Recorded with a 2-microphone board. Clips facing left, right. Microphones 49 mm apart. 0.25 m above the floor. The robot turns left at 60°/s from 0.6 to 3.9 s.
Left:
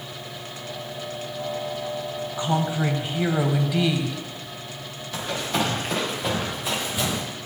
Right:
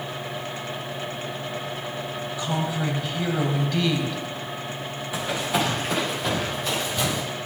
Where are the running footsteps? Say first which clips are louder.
Right 1 dB; 15° right (ahead or behind), 4 m; by 7.2 s 15° left (ahead or behind), 5 m.